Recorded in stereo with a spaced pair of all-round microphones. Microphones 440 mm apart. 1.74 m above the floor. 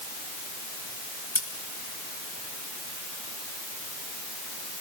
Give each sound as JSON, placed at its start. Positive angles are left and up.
{"t": 1.4, "sound": "scissors", "side_deg": 80, "distance_m": 2.5}